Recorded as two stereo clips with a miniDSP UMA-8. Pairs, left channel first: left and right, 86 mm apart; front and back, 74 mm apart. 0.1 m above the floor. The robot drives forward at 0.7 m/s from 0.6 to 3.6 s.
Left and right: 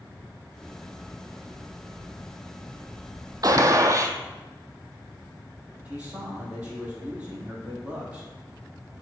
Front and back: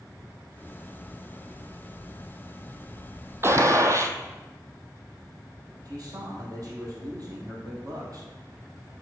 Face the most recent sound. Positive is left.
turn(degrees=-160)